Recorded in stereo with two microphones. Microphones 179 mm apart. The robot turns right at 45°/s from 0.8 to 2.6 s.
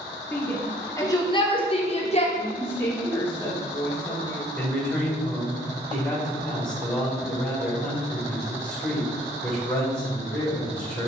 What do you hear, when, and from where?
0.3 s a shout: 15° left (ahead or behind), 0.7 m; by 2.3 s 35° left (ahead or behind), 0.7 m
2.4 s a woman speaking: 5° left (ahead or behind), 1.9 m; by 4.4 s 15° left (ahead or behind), 1.9 m
4.5 s a man speaking: 5° left (ahead or behind), 1.6 m